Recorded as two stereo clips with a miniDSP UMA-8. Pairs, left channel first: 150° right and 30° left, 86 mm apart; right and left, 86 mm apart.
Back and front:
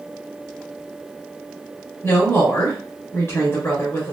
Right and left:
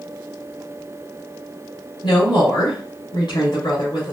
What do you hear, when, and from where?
2.0 s a woman speaking: 100° right, 2.5 m